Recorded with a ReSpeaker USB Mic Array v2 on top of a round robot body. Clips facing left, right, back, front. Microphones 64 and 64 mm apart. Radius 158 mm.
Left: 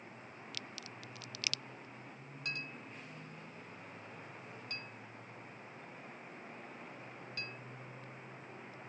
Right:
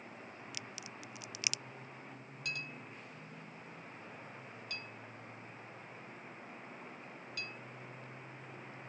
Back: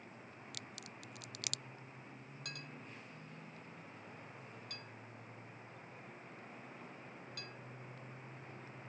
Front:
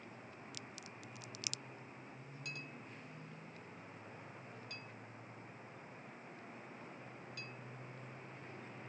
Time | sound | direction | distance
0.5 | a crack | 165° right | ?
2.5 | a clink | 145° left | ?